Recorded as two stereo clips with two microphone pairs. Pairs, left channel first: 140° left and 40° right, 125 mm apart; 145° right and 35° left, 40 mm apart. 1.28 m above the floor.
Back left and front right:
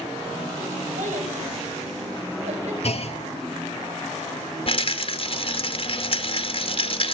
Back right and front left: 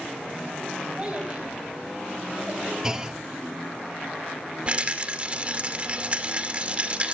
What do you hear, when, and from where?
1.0 s a child speaking: 35° right, 5 m; by 2.7 s 15° right, 5 m
2.8 s a clunk: 110° left, 1.4 m
4.7 s a rattle: 95° left, 2 m